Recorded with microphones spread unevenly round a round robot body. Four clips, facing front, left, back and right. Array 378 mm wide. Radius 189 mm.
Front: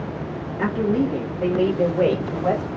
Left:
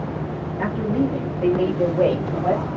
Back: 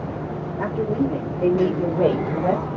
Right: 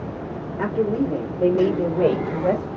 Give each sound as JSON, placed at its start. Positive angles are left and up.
{"t": 0.6, "sound": "a woman speaking", "azimuth_deg": -85, "distance_m": 2.5}